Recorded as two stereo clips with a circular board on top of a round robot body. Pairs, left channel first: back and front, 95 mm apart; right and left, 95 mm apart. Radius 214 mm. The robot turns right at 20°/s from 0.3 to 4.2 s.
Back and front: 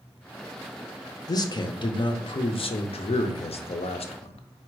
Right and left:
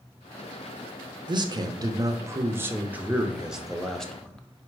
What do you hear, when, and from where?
1.3 s a man speaking: 130° left, 0.6 m; by 4.7 s 170° right, 0.6 m